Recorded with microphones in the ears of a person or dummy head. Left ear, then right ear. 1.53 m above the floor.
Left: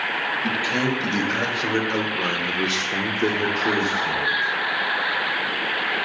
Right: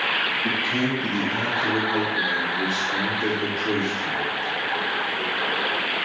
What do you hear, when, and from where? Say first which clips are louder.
0.4 s a man speaking: left 1 dB; 25° left (ahead or behind), 1.4 m